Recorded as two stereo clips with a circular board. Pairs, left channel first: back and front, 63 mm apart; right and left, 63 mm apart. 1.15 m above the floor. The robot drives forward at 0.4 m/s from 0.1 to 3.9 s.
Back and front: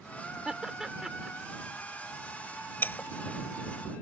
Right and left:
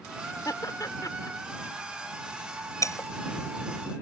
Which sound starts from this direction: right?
Laughter, at 0.5 s.